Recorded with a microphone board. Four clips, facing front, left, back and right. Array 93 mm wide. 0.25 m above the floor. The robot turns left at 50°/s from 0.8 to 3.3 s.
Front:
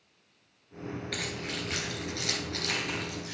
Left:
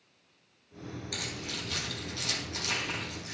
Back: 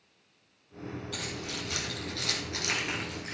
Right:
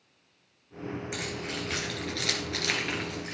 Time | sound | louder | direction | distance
1.1 | keys jangling | right 4 dB, front 2 dB | 25° right | 2.5 m